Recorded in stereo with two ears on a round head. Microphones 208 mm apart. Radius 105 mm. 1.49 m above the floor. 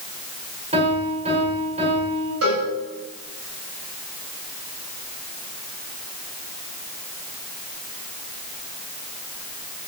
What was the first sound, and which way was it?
A piano, 30° right (ahead or behind).